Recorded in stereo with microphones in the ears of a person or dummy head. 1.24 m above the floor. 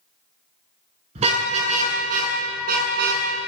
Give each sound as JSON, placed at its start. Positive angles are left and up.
{"t": 1.1, "sound": "a car horn", "side_deg": -35, "distance_m": 7.0}